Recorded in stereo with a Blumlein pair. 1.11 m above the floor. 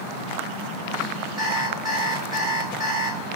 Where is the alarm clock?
20° right, 4 m.